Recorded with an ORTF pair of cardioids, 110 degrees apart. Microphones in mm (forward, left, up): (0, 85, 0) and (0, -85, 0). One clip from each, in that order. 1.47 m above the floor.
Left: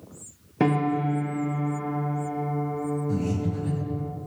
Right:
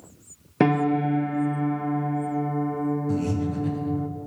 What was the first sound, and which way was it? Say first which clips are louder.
A piano: right 2 dB; 30° right.